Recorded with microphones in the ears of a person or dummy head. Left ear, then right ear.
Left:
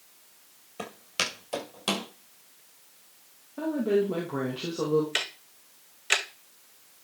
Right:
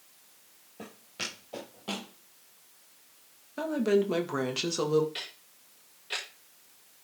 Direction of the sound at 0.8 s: 45° left (ahead or behind).